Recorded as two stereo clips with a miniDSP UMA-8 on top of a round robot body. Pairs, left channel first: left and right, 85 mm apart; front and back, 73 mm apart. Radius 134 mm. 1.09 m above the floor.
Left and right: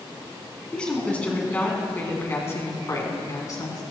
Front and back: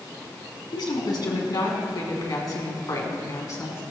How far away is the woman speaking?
About 3.5 m.